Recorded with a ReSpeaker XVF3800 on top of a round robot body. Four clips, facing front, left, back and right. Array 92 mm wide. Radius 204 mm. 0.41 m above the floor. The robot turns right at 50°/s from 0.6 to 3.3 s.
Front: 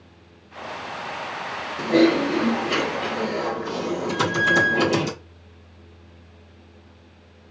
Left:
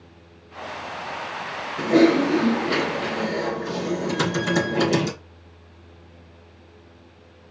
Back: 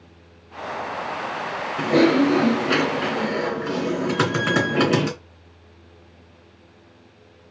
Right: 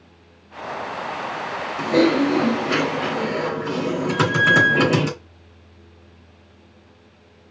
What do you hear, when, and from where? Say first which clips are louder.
1.8 s typing on a keyboard: left 1 dB, back 1 dB; 145° left, 3 m; by 5.1 s 140° right, 3 m
4.1 s a squeak: right 8 dB, front 3 dB; 80° right, 1.6 m